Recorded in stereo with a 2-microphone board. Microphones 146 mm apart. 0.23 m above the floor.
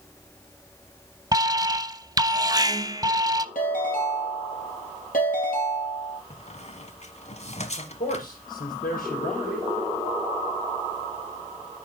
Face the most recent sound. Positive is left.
turn(degrees=80)